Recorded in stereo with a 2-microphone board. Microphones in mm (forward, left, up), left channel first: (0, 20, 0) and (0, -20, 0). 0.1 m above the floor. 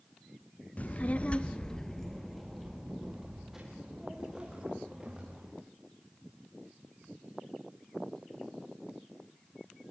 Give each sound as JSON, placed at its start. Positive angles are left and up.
{"t": 0.8, "sound": "a child speaking", "side_deg": 40, "distance_m": 1.0}